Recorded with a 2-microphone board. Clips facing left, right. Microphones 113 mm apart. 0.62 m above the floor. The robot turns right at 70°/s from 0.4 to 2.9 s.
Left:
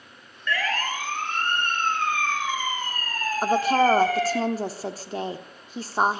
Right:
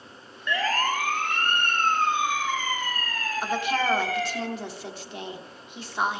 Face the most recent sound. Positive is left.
turn(degrees=40)  # may be behind; listen again after turning